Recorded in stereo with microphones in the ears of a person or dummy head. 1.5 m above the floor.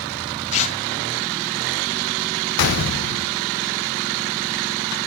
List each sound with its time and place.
0.5 s tearing paper: 35° left (ahead or behind), 3.5 m
2.6 s a gunshot: 60° left (ahead or behind), 1.0 m